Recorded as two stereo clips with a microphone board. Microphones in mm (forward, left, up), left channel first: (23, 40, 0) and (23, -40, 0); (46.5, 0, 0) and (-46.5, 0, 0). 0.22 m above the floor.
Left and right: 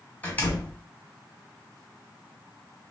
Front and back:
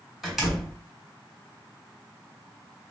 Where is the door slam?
100° left, 1.0 m.